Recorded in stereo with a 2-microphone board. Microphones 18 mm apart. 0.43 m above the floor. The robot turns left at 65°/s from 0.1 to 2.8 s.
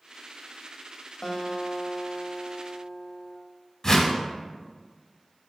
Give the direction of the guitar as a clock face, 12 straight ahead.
7 o'clock.